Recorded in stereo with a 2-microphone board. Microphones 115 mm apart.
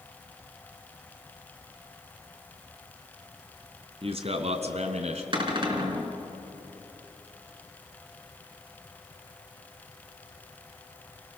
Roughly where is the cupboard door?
Right.